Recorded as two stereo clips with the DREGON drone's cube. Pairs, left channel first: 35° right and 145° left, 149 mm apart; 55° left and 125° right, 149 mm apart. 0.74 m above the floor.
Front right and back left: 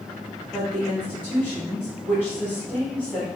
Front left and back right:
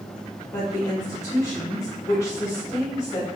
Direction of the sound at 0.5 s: 25° left.